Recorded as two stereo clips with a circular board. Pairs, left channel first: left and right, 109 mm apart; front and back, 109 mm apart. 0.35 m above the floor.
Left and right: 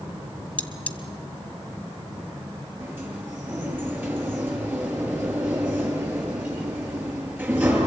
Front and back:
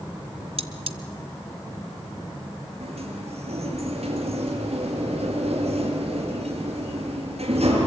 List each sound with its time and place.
0.6 s cutlery clinking: 165° left, 1.2 m
2.8 s a sliding door: 160° right, 6 m